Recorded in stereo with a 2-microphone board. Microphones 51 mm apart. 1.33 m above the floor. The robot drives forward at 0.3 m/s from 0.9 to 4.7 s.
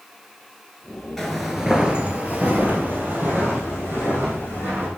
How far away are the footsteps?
About 1.4 m.